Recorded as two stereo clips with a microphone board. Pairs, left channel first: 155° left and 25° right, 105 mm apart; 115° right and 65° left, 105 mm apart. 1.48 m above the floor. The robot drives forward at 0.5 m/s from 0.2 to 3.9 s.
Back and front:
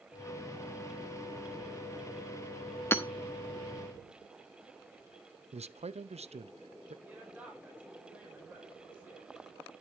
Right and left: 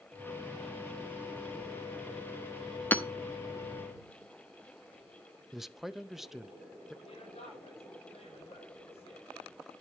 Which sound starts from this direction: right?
A woman speaking, at 7.0 s.